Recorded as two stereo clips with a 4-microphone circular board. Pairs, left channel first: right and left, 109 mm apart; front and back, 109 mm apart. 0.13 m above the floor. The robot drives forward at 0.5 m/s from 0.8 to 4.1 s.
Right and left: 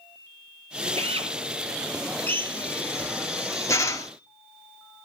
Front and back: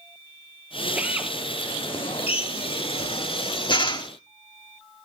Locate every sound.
1.0 s a drill: 105° left, 3 m; by 1.3 s 110° left, 3 m
2.3 s a drill: 20° right, 2 m; by 4.1 s 35° right, 1.3 m